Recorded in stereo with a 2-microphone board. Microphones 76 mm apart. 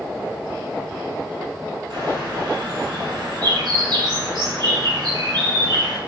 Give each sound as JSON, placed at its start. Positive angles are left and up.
{"t": 1.9, "sound": "a bird", "side_deg": -60, "distance_m": 1.2}